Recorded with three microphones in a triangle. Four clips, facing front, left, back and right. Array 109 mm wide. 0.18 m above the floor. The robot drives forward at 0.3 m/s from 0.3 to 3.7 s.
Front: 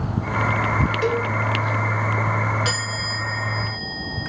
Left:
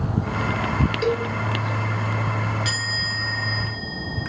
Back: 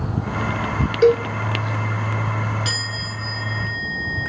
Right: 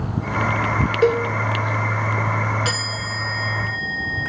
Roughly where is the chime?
Ahead right.